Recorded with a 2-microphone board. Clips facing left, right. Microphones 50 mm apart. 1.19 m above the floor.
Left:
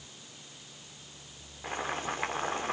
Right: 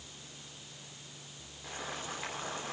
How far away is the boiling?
About 3.5 m.